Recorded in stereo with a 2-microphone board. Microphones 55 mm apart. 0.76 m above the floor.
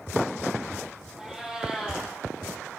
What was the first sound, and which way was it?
A cat meowing, 10° right (ahead or behind).